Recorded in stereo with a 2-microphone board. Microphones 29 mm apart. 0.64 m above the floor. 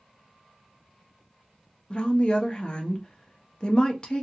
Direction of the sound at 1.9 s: 30° left (ahead or behind).